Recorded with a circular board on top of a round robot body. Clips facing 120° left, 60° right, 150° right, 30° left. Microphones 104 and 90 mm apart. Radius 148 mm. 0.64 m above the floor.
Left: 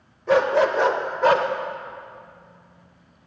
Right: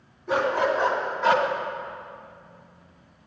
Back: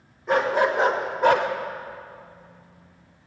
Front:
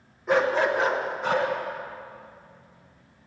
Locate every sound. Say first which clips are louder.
0.3 s a dog barking: left 5 dB, back 1 dB; 120° left, 1.2 m; by 1.5 s straight behind, 1.1 m